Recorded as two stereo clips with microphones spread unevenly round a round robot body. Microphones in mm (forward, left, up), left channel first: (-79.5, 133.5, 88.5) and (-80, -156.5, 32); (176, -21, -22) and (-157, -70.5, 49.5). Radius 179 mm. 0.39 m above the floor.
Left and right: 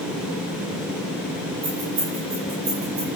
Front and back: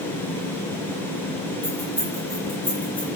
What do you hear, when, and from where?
1.6 s keys jangling: 75° right, 8 m; by 3.1 s 65° right, 8 m